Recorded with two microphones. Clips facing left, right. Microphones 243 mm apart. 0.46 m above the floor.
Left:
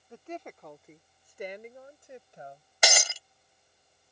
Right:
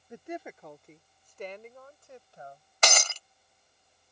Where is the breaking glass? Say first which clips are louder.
Even; 10° left (ahead or behind).